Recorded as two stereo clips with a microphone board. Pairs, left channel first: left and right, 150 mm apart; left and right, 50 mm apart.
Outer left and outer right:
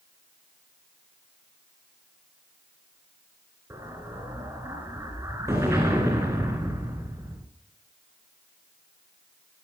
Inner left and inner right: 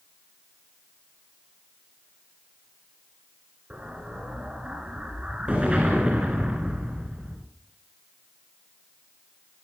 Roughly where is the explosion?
Right.